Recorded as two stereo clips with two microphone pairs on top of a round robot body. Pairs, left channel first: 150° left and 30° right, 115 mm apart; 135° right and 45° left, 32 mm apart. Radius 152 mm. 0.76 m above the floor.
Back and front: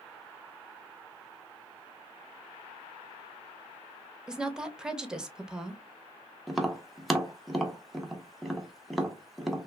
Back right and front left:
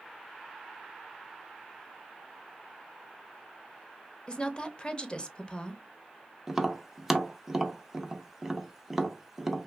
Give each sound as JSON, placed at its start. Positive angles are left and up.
{"t": 4.3, "sound": "a woman speaking", "azimuth_deg": -90, "distance_m": 0.8}
{"t": 6.5, "sound": "tapping", "azimuth_deg": 35, "distance_m": 0.9}